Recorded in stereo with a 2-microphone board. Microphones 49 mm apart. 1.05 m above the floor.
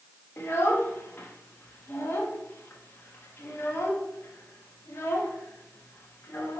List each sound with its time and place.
0.4 s a child speaking: 50° left (ahead or behind), 0.7 m